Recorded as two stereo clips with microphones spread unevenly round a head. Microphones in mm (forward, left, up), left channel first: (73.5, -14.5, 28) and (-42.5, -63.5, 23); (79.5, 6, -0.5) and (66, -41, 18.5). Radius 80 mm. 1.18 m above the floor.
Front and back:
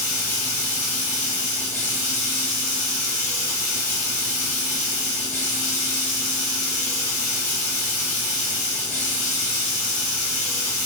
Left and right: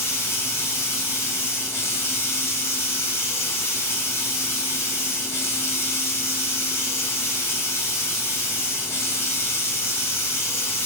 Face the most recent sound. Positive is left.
turn(degrees=55)